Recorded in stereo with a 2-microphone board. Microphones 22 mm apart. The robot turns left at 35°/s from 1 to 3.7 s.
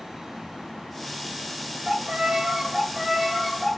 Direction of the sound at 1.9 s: 125° right.